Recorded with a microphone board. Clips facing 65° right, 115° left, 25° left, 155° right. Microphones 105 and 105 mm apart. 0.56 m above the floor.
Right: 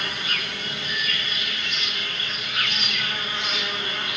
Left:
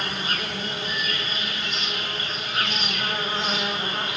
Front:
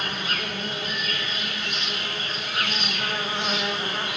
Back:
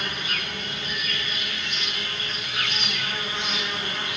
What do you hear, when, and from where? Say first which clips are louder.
0.0 s an insect: left 2 dB, front 2 dB; 60° left, 1.1 m